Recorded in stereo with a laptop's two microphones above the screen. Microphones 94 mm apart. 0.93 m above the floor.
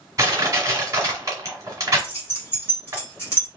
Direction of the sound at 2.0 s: 25° left (ahead or behind).